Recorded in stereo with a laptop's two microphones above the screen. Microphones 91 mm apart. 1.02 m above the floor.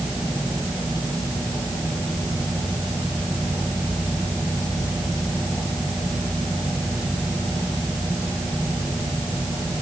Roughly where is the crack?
I don't hear a crack.